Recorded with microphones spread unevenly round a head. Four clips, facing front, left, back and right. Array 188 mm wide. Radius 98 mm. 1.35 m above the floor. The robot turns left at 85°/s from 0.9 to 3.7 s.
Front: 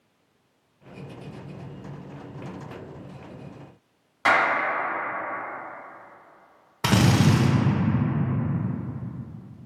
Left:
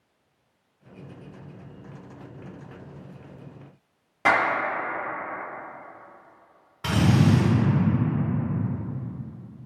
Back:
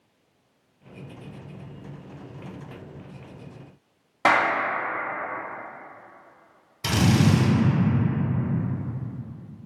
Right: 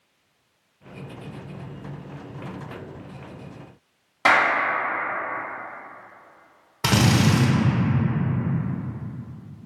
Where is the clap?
Straight behind, 1.0 m.